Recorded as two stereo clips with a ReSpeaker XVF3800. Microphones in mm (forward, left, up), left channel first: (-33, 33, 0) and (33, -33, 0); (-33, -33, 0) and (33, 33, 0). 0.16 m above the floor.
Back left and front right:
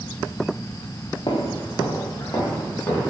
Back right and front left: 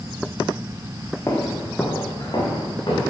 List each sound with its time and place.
1.3 s footsteps: 165° left, 1.5 m; by 3.1 s 170° right, 4 m